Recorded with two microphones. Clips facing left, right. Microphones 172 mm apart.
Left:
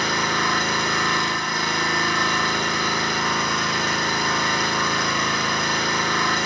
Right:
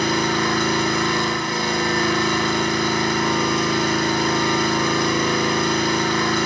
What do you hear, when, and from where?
0.0 s an engine running: 25° right (ahead or behind), 4.5 m